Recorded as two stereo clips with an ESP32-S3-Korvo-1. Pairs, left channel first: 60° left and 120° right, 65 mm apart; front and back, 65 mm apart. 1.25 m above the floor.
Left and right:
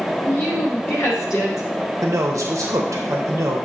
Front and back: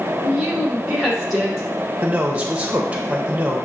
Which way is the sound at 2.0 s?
115° right.